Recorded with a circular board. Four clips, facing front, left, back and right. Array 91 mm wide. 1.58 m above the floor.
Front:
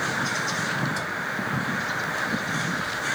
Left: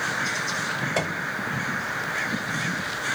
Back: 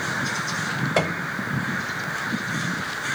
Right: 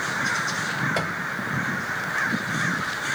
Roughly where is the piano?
Behind.